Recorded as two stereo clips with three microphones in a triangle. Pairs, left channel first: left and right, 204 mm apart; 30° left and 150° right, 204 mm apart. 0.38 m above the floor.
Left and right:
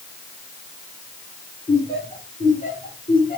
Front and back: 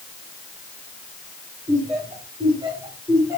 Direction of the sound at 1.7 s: 150° left.